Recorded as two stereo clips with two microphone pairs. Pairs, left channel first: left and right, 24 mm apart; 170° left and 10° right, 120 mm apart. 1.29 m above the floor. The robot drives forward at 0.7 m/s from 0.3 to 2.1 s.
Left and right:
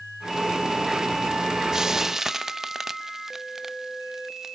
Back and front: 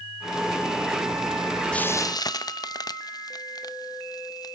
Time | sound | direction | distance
1.7 | frying | 120° right | 0.5 m